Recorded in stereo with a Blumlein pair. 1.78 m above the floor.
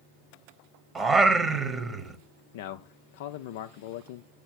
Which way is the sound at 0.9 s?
15° right.